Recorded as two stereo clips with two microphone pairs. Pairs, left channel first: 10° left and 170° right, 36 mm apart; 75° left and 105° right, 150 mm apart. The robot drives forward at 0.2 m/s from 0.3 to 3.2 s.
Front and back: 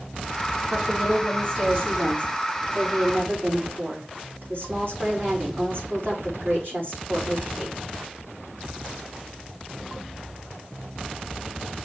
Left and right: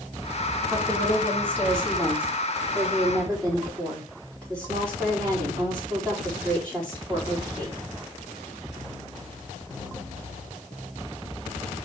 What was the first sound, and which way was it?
A woman speaking, 155° left.